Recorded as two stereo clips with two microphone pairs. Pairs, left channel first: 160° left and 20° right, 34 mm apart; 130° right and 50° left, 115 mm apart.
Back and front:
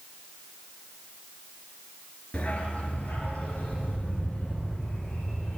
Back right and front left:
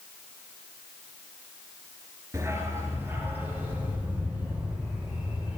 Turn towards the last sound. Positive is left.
turn(degrees=130)